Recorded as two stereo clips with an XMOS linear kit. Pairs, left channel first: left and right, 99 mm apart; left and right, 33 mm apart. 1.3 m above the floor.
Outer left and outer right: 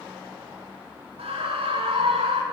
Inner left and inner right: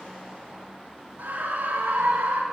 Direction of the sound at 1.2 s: 85° right.